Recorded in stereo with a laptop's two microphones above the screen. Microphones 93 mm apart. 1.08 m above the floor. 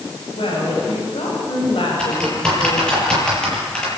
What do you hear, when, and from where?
0.3 s a woman speaking: 75° left (ahead or behind), 6 m; by 3.0 s 70° left (ahead or behind), 4 m
2.0 s typing on a keyboard: 10° left (ahead or behind), 8.5 m